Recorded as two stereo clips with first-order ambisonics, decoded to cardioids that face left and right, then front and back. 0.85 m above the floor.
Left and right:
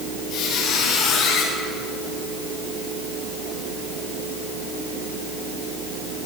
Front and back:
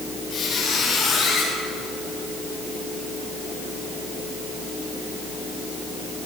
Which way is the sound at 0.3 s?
45° left.